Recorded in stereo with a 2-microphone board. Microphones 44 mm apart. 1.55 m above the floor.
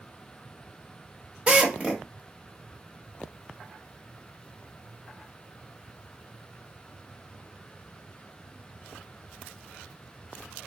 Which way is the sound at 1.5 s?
25° right (ahead or behind).